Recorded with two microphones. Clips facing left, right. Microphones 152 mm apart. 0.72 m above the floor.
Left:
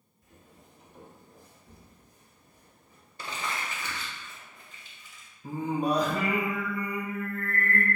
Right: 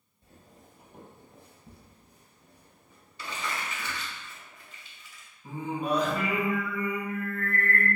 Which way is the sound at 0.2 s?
30° right (ahead or behind).